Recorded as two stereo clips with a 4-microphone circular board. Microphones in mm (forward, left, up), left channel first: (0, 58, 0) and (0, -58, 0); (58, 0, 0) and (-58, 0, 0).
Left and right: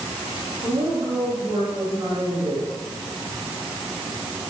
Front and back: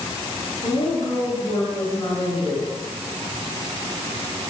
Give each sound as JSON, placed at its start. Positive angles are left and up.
{"t": 0.6, "sound": "a woman speaking", "azimuth_deg": -50, "distance_m": 8.5}